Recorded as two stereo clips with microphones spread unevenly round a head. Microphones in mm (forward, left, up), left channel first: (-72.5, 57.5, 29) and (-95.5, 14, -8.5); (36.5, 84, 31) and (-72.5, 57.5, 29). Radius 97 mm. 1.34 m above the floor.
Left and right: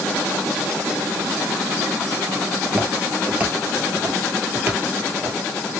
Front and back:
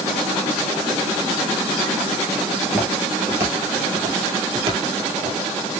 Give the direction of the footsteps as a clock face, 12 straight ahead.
8 o'clock.